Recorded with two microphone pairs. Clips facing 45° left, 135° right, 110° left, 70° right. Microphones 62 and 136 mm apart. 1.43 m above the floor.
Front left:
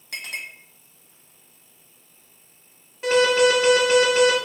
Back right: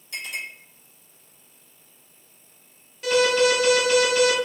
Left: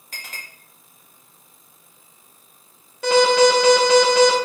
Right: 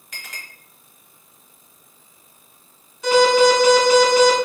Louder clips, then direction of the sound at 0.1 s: Even, even; 55° left.